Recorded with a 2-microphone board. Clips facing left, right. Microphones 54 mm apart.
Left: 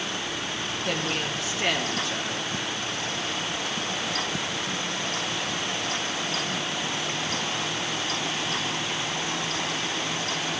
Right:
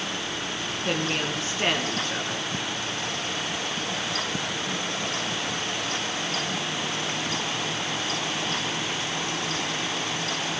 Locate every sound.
0.8 s a woman speaking: 40° right (ahead or behind), 3.5 m